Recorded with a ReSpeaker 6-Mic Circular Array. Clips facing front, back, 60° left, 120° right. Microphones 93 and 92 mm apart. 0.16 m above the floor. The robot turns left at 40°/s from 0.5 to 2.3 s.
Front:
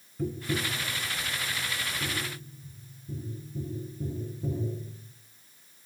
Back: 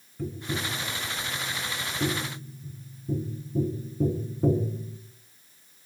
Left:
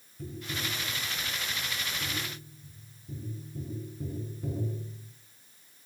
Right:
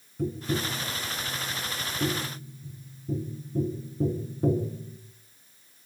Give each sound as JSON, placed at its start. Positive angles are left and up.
{"t": 0.2, "sound": "tapping", "azimuth_deg": -90, "distance_m": 5.0}